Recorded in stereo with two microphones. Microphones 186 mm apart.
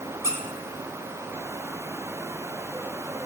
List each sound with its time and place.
0.2 s a squeak: 15° right (ahead or behind), 0.9 m